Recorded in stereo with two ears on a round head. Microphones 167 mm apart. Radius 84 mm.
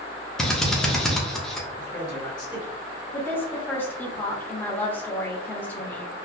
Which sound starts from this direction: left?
A man speaking, at 1.8 s.